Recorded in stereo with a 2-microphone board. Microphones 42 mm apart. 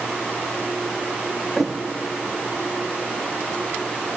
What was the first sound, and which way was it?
A thud, centre (ahead or behind).